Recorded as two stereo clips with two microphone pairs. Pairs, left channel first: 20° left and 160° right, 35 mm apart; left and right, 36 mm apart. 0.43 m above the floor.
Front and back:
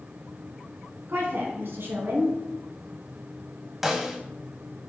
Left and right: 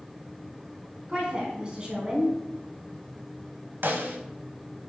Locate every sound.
1.1 s a woman speaking: 155° right, 3.5 m
3.8 s a snare drum: 75° right, 1.3 m